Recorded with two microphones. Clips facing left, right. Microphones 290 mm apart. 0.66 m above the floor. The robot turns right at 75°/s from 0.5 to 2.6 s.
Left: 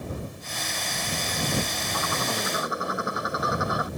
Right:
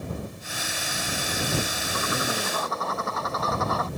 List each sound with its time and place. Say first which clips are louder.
1.9 s a bird: right 2 dB; 35° right; by 3.9 s 15° left